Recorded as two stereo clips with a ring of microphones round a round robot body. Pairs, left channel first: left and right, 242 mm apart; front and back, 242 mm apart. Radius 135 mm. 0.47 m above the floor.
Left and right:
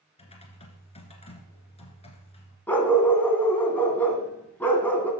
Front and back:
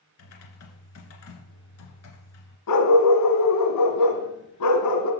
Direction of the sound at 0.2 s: 25° left.